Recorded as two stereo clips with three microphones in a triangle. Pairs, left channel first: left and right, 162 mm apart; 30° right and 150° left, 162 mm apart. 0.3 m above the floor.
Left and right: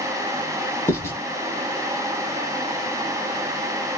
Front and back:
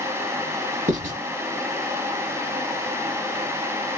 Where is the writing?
160° left, 0.9 m.